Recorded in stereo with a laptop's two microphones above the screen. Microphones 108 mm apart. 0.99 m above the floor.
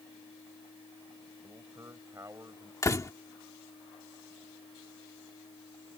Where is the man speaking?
30° right (ahead or behind).